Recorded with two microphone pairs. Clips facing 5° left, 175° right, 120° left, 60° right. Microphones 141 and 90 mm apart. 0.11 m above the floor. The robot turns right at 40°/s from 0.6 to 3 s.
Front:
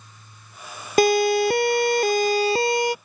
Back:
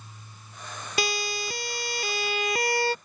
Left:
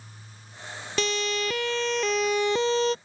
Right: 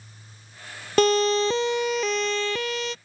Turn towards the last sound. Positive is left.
turn(degrees=80)